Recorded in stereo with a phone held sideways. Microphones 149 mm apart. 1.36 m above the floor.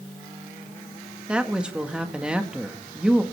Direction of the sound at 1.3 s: 5° right (ahead or behind).